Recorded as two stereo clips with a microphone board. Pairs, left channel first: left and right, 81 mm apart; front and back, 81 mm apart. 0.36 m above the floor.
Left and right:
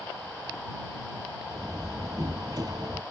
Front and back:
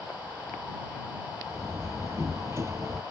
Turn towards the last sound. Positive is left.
turn(degrees=-125)